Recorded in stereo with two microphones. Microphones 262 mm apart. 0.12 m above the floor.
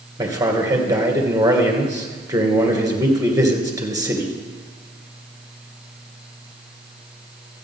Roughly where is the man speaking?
Centre.